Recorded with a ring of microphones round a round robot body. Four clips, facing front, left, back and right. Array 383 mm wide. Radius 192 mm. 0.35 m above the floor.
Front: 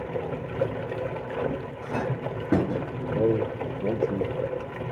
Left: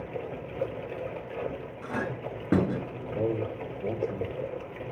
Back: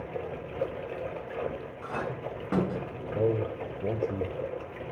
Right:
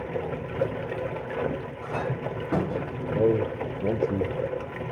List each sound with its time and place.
0.0 s running water: 40° right, 0.8 m
1.8 s a clink: 45° left, 3 m
3.1 s a man speaking: 60° right, 1.4 m